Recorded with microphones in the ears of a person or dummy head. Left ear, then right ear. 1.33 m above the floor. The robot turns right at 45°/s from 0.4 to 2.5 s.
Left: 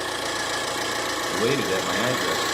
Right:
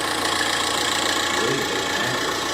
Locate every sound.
0.0 s an engine running: 65° right, 1.2 m; by 2.6 s 30° left, 1.2 m
1.3 s a man speaking: 110° left, 0.5 m; by 2.5 s 165° left, 0.5 m